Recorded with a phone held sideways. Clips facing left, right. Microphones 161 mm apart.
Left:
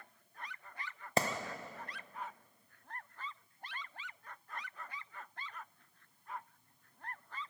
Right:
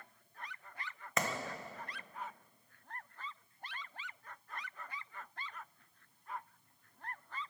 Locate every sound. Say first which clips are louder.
1.2 s a clap: left 4 dB; 30° left (ahead or behind), 0.6 m